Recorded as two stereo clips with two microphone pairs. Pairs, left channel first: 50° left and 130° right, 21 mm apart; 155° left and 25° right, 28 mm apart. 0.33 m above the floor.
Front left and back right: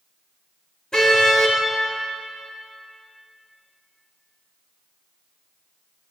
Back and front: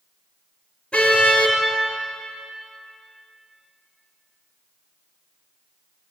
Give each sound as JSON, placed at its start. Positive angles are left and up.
{"t": 0.9, "sound": "a car horn", "azimuth_deg": 105, "distance_m": 3.5}